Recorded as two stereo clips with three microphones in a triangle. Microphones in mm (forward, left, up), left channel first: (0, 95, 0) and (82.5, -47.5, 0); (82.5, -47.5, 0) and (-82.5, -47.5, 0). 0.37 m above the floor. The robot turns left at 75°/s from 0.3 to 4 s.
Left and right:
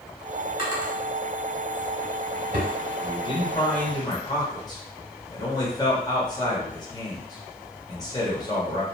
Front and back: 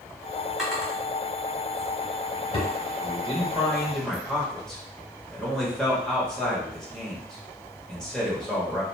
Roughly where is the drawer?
Left.